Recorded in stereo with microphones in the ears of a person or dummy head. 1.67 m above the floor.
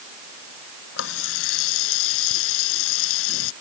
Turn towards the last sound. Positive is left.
turn(degrees=75)  # may be behind; listen again after turning